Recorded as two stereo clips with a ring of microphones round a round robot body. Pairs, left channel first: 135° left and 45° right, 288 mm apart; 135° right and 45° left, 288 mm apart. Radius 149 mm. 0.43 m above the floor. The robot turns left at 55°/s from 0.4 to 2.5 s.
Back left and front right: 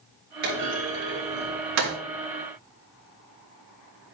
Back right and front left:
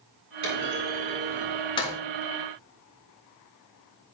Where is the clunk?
15° left, 6 m; by 1.9 s 70° right, 6 m.